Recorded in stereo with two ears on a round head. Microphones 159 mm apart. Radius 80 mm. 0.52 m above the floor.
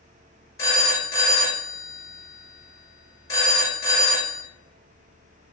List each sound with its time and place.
0.6 s a phone ringing: 20° left (ahead or behind), 1.6 m